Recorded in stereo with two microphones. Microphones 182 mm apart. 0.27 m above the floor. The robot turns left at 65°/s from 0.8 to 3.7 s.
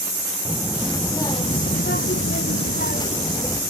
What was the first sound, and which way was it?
A child speaking, 170° right.